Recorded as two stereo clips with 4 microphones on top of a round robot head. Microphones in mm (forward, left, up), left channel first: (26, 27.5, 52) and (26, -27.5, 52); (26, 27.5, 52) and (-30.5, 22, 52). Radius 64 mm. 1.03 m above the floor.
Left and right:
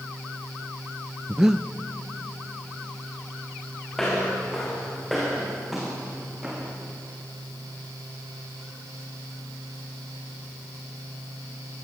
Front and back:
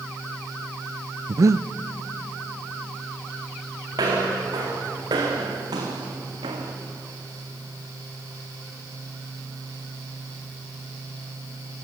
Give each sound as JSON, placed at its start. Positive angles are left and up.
{"t": 1.3, "sound": "breathing", "azimuth_deg": -170, "distance_m": 0.6}
{"t": 3.9, "sound": "footsteps", "azimuth_deg": 175, "distance_m": 5.0}